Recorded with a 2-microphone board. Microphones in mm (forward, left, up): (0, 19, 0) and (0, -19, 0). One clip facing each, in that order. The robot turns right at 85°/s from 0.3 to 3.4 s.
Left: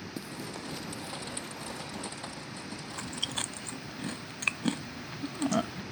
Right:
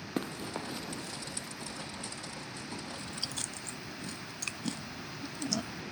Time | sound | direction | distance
0.2 | running footsteps | 45° right (ahead or behind) | ?
2.9 | chewing | 85° left | ?